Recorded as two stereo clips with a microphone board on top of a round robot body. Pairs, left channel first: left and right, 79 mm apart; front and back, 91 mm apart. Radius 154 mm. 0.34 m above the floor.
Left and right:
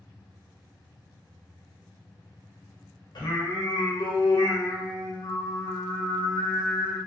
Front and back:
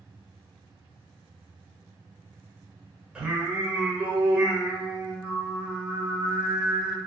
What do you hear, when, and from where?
3.1 s singing: 100° left, 1.0 m